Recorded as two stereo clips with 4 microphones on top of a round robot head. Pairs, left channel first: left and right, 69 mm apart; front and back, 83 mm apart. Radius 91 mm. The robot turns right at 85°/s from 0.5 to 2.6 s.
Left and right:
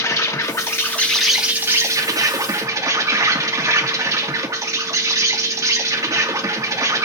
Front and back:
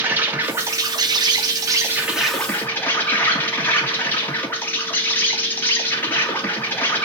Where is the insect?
115° left, 2.5 m; by 7.0 s 65° right, 2.5 m.